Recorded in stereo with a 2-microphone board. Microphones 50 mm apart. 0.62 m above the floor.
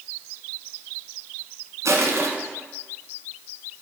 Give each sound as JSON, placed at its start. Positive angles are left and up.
{"t": 1.9, "sound": "crushing", "side_deg": -75, "distance_m": 1.4}